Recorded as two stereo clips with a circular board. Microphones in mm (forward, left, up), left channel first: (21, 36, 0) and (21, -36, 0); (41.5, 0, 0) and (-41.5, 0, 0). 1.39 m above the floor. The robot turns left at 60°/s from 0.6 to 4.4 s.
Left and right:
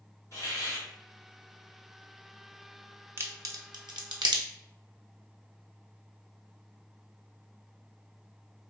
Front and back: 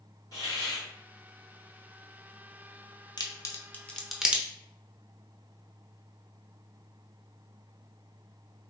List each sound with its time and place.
0.3 s a hiss: 45° left, 1.8 m; by 0.9 s 30° left, 1.8 m
3.2 s a crack: 35° right, 0.7 m; by 4.4 s 105° right, 0.7 m